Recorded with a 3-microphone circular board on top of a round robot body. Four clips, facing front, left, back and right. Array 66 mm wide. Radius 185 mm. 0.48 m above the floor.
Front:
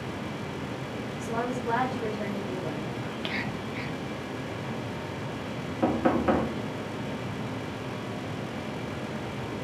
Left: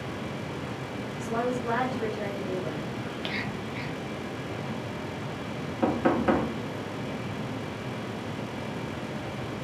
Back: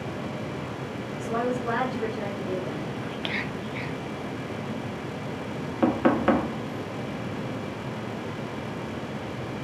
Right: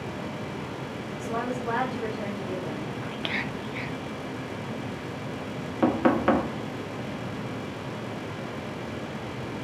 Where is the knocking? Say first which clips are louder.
Right 2 dB, back 3 dB; 145° right, 1.2 m.